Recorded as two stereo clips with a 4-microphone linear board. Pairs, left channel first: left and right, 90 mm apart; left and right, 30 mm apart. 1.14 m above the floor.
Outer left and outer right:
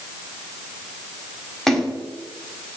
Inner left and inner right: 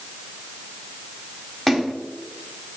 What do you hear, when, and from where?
1.7 s a splash: 5° left (ahead or behind), 1.0 m